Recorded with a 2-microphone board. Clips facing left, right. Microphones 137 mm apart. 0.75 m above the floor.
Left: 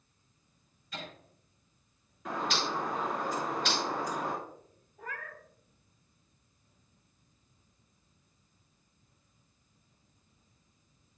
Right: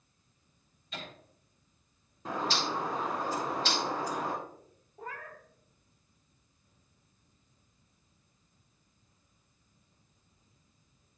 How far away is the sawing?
No sawing in this recording.